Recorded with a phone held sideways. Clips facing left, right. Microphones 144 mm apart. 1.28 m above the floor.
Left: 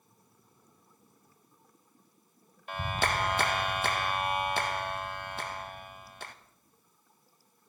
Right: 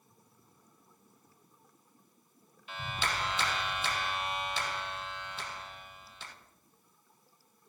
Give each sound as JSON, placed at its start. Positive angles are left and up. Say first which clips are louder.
{"t": 2.7, "sound": "a clap", "louder": "left 5 dB", "side_deg": 55, "distance_m": 0.8}